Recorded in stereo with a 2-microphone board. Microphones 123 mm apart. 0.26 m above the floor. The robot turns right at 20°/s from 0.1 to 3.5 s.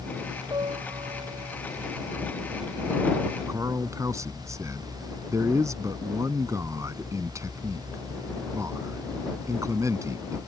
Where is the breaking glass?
I don't hear breaking glass.